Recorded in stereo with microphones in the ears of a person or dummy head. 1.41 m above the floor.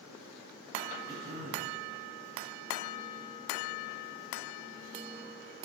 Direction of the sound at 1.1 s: 35° right (ahead or behind).